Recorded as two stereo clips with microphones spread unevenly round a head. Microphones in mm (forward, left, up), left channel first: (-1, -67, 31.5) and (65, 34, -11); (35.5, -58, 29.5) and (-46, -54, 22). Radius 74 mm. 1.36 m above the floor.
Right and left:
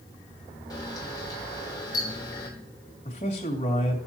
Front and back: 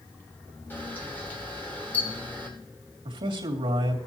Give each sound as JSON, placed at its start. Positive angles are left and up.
{"t": 0.7, "sound": "a camera shutter", "azimuth_deg": -70, "distance_m": 2.5}
{"t": 3.0, "sound": "a man speaking", "azimuth_deg": -175, "distance_m": 2.5}